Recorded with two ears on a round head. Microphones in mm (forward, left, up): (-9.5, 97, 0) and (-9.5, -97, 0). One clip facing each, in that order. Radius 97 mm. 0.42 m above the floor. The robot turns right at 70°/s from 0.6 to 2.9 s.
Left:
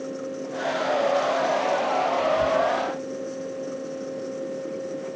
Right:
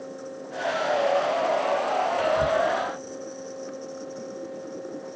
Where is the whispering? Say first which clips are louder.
Even; 15° right (ahead or behind), 1.5 m; by 2.6 s 25° right (ahead or behind), 1.5 m.